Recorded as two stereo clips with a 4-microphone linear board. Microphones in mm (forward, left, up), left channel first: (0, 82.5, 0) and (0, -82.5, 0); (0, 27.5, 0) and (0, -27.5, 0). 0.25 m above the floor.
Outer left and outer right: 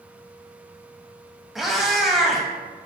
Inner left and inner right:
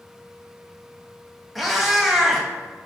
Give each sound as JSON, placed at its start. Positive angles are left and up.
{"t": 1.6, "sound": "a cat meowing", "side_deg": 0, "distance_m": 0.6}